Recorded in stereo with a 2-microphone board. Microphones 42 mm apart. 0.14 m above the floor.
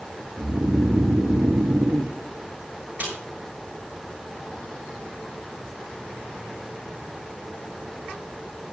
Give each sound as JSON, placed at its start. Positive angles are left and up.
{"t": 0.4, "sound": "snoring", "side_deg": -75, "distance_m": 1.2}
{"t": 3.0, "sound": "a snare drum", "side_deg": -40, "distance_m": 6.5}